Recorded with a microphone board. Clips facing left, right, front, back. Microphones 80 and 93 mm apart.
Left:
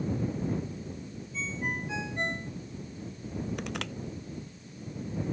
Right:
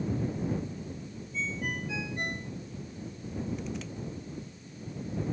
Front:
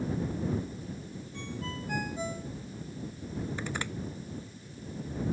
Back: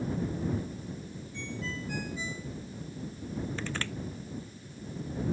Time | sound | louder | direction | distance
1.3 | a ringtone | even, back 1 dB | 30° left | ?
3.6 | crushing | left 2 dB, even | 75° left | ?